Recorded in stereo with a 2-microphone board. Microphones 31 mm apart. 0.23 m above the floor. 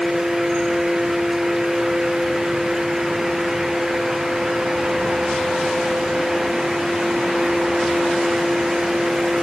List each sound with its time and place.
Only background noise.